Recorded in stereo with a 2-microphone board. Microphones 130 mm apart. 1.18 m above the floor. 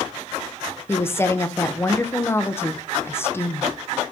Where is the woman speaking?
20° left (ahead or behind), 0.7 m.